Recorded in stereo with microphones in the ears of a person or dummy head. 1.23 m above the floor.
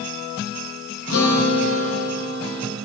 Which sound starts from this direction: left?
A guitar, at 1.1 s.